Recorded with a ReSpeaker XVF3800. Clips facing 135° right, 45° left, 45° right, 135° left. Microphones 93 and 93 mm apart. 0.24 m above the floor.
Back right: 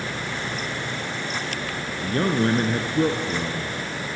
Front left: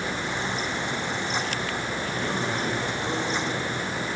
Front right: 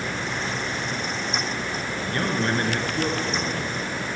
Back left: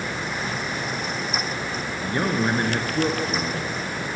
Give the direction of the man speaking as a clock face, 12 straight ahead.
5 o'clock.